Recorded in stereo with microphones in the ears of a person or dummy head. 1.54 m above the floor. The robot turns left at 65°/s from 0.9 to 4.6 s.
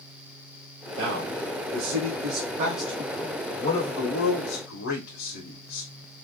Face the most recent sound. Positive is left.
turn(degrees=90)